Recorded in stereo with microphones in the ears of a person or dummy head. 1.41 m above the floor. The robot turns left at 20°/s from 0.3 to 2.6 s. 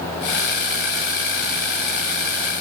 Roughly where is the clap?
I don't hear a clap.